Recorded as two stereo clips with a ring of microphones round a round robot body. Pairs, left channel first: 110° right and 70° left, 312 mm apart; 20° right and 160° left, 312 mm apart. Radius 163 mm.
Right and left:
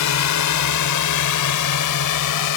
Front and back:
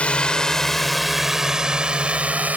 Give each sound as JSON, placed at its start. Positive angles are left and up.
{"t": 0.0, "sound": "a drone", "azimuth_deg": -110}